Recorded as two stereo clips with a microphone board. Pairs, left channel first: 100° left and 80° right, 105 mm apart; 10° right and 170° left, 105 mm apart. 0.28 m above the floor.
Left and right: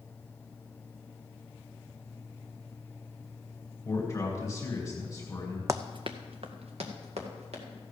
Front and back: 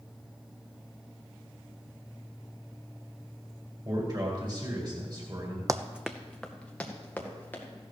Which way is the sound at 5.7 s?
135° right.